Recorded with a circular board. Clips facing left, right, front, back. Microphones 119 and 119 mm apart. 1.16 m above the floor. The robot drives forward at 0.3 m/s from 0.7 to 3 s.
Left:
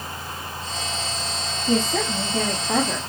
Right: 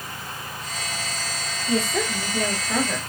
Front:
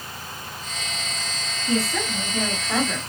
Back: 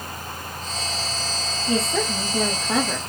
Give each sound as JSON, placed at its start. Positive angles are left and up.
{"t": 1.7, "sound": "a woman speaking", "azimuth_deg": 115, "distance_m": 1.5}